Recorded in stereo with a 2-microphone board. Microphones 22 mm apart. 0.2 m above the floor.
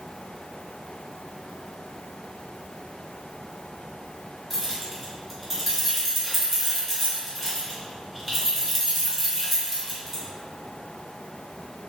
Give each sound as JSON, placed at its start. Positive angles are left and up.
{"t": 4.5, "sound": "keys jangling", "side_deg": 0, "distance_m": 1.6}